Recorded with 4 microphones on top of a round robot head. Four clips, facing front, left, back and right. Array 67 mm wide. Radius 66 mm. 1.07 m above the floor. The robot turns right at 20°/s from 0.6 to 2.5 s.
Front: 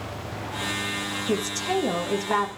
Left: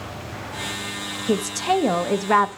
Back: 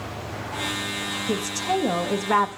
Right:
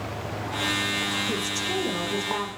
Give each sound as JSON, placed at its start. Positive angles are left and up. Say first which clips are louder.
{"t": 1.3, "sound": "a woman speaking", "louder": "left 7 dB, back 1 dB", "azimuth_deg": 90, "distance_m": 0.9}